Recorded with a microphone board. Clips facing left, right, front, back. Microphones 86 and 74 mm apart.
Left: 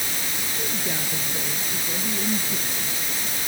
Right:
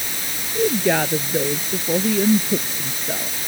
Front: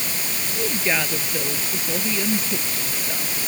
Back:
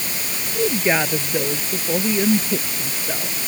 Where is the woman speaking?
110° right.